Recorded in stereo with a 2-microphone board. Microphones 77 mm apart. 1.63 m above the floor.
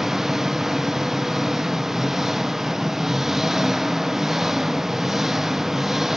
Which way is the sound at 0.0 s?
5° right (ahead or behind).